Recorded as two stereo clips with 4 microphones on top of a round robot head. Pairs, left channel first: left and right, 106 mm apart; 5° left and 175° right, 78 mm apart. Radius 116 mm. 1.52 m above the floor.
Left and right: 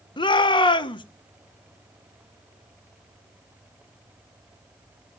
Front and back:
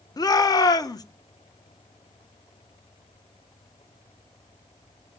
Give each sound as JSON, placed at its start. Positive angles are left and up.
{"t": 0.2, "sound": "a shout", "azimuth_deg": 45, "distance_m": 1.7}